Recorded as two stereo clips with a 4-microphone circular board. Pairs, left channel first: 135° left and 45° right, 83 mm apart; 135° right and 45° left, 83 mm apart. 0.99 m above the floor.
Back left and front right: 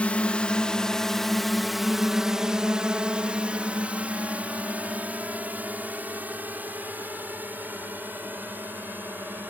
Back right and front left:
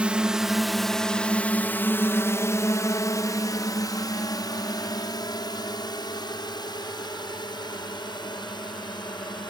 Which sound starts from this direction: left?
A drone, at 0.0 s.